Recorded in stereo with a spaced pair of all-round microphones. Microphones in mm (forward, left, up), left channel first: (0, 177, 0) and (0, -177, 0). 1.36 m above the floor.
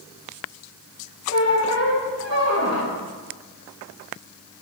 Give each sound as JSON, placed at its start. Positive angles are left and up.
{"t": 1.3, "sound": "a squeak", "side_deg": 45, "distance_m": 1.8}